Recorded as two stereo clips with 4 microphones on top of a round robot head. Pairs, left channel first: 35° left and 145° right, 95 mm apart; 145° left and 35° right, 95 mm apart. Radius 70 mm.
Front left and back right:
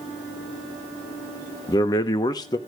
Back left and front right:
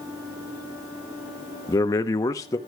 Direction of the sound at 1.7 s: 85° left.